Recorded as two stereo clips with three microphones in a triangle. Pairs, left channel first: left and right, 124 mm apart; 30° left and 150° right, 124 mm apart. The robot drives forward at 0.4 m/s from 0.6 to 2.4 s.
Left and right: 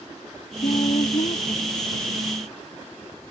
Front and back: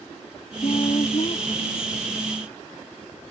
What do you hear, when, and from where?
0.6 s a woman speaking: 70° left